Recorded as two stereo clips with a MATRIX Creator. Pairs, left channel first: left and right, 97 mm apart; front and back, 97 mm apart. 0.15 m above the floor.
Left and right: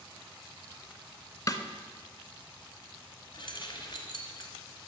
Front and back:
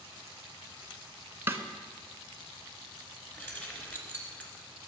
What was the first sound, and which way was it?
A snare drum, 120° left.